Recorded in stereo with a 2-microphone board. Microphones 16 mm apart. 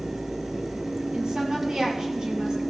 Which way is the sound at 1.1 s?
65° right (ahead or behind).